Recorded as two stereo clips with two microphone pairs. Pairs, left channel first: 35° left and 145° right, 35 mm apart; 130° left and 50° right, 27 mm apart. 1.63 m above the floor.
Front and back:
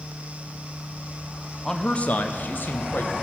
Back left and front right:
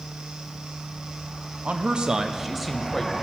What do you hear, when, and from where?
1.6 s a man speaking: 45° right, 0.5 m; by 3.1 s 45° left, 1.2 m